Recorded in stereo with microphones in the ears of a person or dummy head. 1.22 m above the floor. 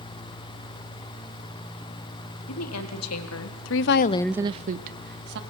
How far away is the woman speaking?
About 2.5 m.